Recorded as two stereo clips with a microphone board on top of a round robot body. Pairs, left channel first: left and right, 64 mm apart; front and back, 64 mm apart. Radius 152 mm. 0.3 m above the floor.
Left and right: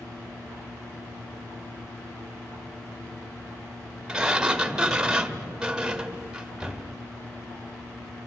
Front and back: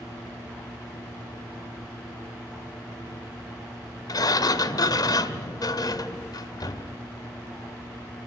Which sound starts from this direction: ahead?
A sliding door, at 4.1 s.